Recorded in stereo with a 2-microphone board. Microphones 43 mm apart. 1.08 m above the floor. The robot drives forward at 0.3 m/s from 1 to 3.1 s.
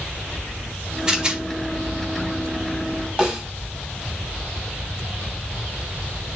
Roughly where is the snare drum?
Right.